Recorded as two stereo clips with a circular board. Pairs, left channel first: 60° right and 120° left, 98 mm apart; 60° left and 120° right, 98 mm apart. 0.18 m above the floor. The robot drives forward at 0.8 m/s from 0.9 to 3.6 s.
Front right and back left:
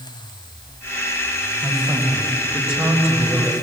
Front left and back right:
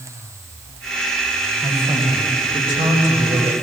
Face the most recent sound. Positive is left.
turn(degrees=-160)